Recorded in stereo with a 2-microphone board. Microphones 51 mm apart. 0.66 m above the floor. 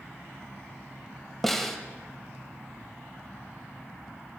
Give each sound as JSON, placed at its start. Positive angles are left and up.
{"t": 1.4, "sound": "a snare drum", "side_deg": 5, "distance_m": 1.1}